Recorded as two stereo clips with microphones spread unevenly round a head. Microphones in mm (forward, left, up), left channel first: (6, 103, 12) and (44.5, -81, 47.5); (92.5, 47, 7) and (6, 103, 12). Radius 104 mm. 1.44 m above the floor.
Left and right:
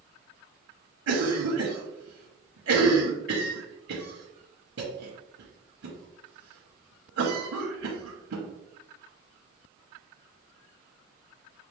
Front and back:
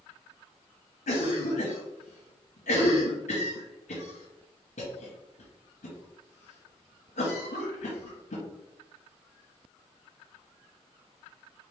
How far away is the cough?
About 0.9 m.